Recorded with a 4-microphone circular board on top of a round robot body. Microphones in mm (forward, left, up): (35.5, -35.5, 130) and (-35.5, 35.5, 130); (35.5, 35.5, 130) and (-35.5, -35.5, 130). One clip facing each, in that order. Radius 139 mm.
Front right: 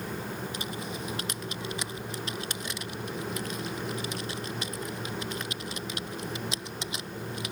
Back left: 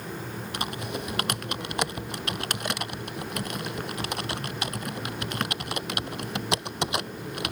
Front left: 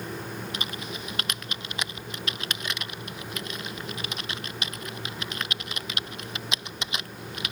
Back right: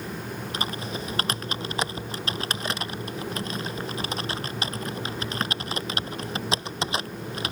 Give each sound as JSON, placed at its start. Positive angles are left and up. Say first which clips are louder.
{"t": 0.5, "sound": "typing on a keyboard", "louder": "back left 3 dB, back right 4 dB", "azimuth_deg": 170}